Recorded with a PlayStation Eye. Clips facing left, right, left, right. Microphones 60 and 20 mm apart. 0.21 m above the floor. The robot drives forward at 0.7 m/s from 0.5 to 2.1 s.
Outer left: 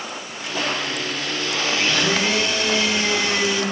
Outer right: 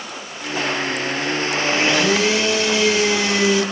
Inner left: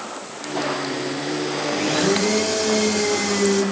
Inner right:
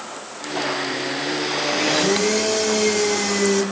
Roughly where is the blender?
Centre.